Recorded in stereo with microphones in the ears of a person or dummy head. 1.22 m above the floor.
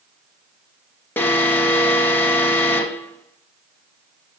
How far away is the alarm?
About 0.9 m.